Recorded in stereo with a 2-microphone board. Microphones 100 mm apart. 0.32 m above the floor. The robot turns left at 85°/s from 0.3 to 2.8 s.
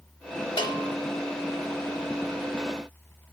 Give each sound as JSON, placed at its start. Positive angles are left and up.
{"t": 0.6, "sound": "a bell", "azimuth_deg": 100, "distance_m": 0.8}